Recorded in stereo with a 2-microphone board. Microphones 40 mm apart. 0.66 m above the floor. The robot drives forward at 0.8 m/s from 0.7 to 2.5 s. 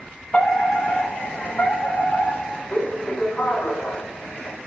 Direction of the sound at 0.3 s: 35° left (ahead or behind).